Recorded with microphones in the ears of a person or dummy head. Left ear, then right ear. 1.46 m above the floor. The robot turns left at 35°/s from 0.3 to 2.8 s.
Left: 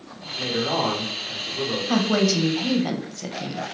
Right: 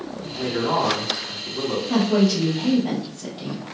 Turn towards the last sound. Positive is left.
turn(degrees=95)